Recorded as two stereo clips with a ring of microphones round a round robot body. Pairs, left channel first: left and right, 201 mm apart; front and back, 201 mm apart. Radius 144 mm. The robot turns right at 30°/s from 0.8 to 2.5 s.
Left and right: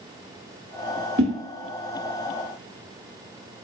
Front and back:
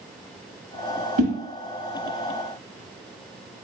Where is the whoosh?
145° right, 0.7 m; by 1.3 s 140° right, 0.7 m.